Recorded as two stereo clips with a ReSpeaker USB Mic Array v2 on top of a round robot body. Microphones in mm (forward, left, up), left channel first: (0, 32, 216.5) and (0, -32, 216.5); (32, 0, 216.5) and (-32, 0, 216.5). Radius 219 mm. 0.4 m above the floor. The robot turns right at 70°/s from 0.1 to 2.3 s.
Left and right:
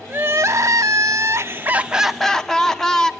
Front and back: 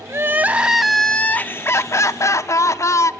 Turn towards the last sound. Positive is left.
turn(degrees=10)